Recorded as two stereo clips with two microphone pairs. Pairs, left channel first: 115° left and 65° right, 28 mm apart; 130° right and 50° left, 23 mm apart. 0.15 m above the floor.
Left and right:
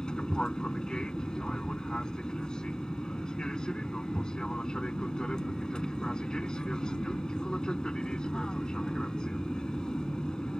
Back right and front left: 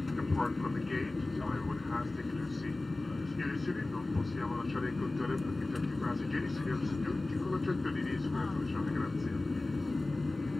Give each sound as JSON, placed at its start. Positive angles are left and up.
{"t": 0.0, "sound": "an aircraft", "azimuth_deg": 135}